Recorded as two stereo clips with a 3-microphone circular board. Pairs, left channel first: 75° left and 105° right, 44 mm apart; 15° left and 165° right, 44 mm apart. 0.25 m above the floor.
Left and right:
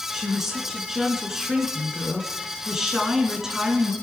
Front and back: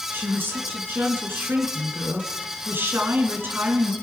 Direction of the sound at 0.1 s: 175° left.